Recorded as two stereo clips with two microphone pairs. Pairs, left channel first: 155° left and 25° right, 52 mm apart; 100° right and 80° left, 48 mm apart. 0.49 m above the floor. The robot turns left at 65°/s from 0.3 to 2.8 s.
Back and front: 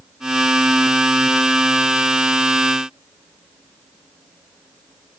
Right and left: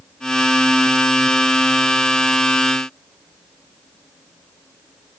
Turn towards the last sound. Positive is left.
No sound to turn to.